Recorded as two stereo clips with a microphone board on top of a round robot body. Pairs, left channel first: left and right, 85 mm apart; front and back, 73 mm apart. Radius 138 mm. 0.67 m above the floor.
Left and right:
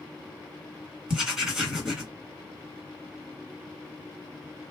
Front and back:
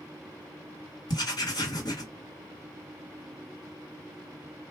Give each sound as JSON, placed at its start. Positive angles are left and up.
{"t": 1.1, "sound": "writing", "azimuth_deg": -5, "distance_m": 2.0}